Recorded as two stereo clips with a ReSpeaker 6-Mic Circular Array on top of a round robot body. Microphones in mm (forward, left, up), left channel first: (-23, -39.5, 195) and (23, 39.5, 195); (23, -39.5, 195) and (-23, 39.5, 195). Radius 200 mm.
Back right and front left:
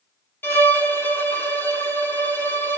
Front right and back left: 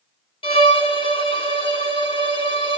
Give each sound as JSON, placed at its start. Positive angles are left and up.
{"t": 0.4, "sound": "a violin", "azimuth_deg": -50, "distance_m": 2.5}